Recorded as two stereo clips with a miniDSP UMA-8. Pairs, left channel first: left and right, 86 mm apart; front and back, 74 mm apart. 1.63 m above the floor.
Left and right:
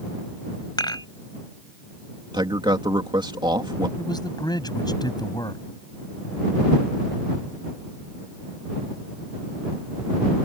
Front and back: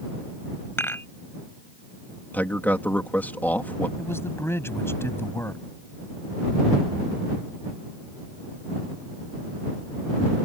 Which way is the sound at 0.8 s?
55° left.